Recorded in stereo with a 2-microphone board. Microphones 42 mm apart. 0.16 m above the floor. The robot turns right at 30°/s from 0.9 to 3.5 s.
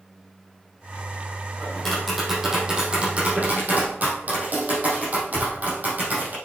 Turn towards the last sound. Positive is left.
turn(degrees=-135)